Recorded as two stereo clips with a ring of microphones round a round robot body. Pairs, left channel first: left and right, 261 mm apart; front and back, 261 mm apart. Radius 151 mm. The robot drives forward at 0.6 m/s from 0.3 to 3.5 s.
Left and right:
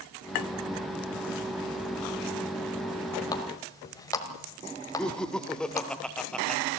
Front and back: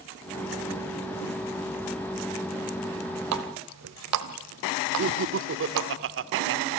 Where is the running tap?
165° left, 1.3 m.